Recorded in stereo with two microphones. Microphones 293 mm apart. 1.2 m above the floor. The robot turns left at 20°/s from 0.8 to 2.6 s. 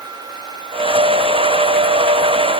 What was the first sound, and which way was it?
Only background noise.